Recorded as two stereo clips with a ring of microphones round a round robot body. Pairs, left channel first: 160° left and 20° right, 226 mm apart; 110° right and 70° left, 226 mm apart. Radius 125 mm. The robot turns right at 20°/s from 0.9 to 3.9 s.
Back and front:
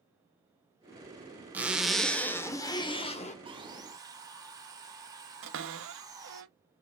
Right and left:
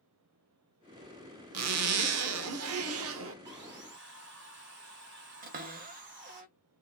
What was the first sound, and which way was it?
A zipper, 60° left.